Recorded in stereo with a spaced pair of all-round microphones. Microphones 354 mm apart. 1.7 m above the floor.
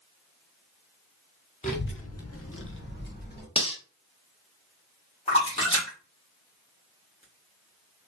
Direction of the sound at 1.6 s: 20° left (ahead or behind).